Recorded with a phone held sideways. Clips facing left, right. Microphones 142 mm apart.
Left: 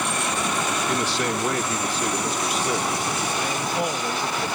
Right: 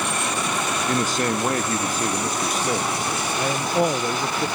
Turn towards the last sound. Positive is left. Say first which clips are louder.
# right 8 dB
turn(degrees=-45)  # may be behind; listen again after turning